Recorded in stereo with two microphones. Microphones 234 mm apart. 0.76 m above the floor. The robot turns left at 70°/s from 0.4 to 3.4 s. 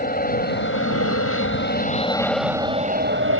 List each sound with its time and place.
0.0 s an aircraft: 140° left; by 3.4 s 70° right